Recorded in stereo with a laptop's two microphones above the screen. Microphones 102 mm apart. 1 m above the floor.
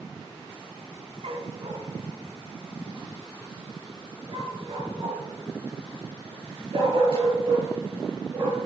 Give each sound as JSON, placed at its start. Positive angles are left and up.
{"t": 1.2, "sound": "a dog barking", "side_deg": -65, "distance_m": 2.0}